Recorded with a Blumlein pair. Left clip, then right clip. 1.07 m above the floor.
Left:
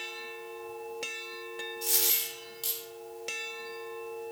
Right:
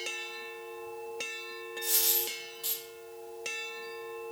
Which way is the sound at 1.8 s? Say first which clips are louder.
Even; 60° left.